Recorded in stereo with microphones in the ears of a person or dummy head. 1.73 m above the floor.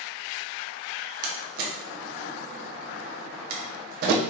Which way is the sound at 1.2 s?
55° right (ahead or behind).